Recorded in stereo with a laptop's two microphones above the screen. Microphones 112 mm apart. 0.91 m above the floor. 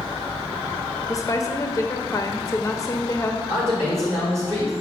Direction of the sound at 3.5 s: 30° right (ahead or behind).